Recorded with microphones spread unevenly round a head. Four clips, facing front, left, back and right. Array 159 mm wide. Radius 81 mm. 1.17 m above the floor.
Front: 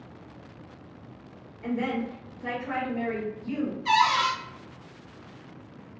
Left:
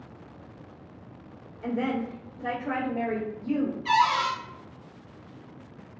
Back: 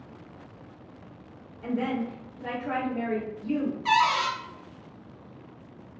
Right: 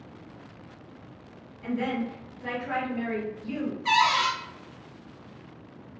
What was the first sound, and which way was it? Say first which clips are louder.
A woman speaking: left 1 dB, even; 100° left.